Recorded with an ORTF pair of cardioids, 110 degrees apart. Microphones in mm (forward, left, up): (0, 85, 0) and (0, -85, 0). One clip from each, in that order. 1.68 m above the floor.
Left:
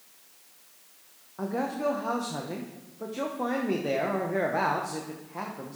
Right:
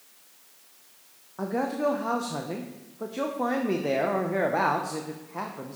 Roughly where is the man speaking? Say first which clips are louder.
Right 2 dB; ahead.